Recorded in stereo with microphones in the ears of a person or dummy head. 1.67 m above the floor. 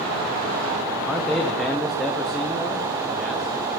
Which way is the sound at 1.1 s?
5° right (ahead or behind).